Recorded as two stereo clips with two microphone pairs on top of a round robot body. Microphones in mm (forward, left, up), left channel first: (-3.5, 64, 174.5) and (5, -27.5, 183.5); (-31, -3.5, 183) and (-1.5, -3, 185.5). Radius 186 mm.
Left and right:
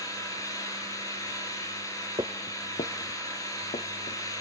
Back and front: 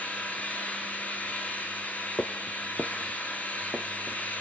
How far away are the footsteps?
About 0.5 m.